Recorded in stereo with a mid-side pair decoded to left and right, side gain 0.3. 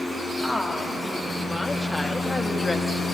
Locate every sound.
0.4 s a woman speaking: 5° left, 2 m; by 3.0 s 30° left, 1.0 m